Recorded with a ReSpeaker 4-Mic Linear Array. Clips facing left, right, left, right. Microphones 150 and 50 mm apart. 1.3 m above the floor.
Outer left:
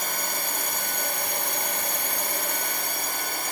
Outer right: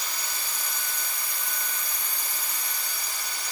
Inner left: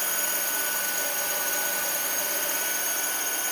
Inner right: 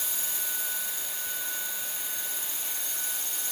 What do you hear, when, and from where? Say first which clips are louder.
0.0 s a drone: outer left 7 dB, inner left 8 dB; 55° left (ahead or behind)